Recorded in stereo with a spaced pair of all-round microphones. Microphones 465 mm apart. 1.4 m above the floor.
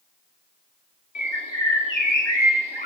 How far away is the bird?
About 4 m.